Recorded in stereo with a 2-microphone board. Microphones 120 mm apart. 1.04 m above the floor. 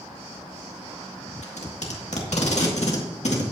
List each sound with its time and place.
1.4 s tape being pulled: 70° left (ahead or behind), 1.8 m